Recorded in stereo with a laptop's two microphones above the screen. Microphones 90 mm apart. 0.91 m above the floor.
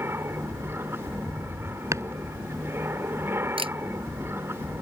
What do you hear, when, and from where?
0.0 s an aircraft: 25° right (ahead or behind)
1.9 s chopping: 35° right (ahead or behind)
3.6 s a camera shutter: 80° right